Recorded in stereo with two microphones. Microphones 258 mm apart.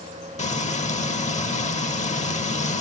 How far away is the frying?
About 0.9 m.